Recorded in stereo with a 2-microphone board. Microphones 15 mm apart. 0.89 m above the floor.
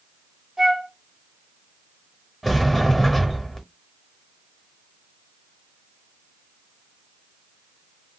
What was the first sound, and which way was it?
A flute, 20° right (ahead or behind).